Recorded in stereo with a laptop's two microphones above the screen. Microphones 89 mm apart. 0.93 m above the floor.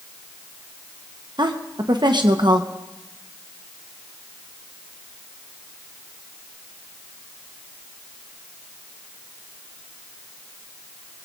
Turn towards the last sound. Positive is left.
turn(degrees=-55)  # may be behind; listen again after turning